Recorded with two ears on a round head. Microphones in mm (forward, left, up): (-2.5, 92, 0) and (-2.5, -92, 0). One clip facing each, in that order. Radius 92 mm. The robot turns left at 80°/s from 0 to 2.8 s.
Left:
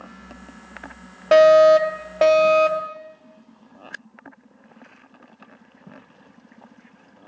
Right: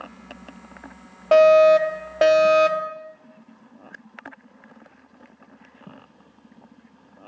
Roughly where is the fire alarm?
Centre.